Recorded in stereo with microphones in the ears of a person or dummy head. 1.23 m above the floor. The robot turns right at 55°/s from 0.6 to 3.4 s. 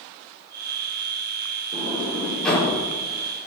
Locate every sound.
1.7 s a sliding door: 40° right (ahead or behind), 4.5 m; by 2.7 s 15° left (ahead or behind), 4.5 m